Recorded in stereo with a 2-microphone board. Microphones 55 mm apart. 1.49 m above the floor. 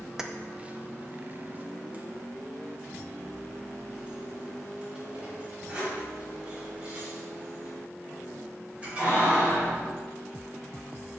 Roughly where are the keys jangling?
Centre.